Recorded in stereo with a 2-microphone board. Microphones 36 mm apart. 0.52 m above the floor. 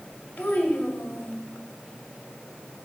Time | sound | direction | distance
0.4 | a child speaking | 65° left (ahead or behind) | 1.6 m